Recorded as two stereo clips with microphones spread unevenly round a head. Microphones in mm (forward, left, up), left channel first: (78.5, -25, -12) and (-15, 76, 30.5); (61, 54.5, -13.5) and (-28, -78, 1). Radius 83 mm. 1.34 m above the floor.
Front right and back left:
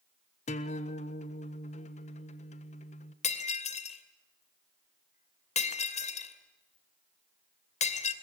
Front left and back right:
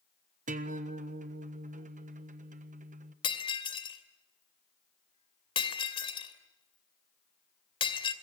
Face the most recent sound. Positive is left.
turn(degrees=-5)